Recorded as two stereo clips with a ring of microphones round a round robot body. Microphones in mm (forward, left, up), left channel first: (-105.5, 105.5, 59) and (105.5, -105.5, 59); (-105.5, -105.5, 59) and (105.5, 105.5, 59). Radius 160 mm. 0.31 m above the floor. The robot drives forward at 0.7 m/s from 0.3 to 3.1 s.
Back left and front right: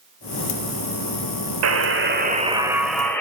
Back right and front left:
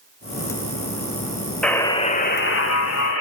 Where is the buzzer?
50° right, 0.9 m; by 3.2 s 140° right, 1.0 m.